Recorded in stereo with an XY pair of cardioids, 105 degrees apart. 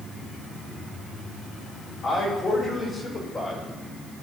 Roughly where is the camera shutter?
No camera shutter in this recording.